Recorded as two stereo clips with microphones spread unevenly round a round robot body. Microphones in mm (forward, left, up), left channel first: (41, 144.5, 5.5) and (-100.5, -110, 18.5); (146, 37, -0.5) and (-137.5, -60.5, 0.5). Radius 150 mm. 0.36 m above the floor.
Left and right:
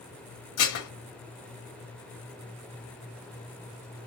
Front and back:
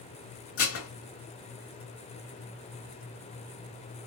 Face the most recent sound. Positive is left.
turn(degrees=55)